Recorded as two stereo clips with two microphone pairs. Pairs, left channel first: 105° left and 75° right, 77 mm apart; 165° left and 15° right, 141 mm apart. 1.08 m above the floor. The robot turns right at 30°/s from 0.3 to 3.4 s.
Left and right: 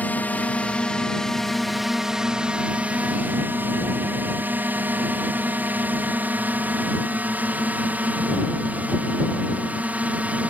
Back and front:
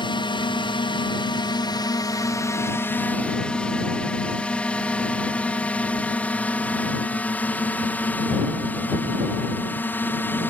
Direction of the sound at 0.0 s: 155° left.